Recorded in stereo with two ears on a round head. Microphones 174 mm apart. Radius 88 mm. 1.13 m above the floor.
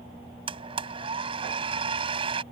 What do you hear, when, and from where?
0.5 s a blender: 25° right (ahead or behind)